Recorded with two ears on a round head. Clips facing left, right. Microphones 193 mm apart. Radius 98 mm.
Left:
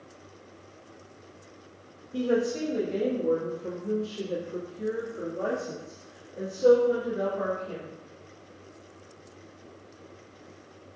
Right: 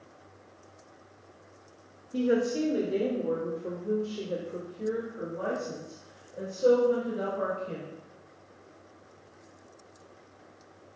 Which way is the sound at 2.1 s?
20° right (ahead or behind).